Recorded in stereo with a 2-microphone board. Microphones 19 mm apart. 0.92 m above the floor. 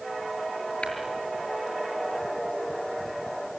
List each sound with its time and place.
0.8 s tapping: 80° left, 6 m